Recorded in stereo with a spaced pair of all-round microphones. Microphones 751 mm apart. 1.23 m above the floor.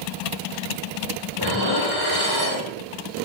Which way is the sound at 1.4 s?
30° left (ahead or behind).